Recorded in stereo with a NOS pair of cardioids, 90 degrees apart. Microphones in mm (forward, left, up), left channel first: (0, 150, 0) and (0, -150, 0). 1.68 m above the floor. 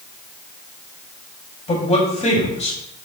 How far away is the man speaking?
About 3.5 m.